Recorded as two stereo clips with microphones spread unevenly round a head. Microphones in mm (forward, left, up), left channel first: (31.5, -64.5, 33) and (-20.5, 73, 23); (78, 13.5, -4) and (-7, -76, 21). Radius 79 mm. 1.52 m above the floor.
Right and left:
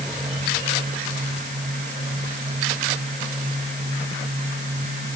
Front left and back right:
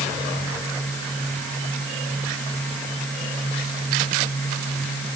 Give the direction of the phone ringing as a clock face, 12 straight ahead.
I don't hear a phone ringing.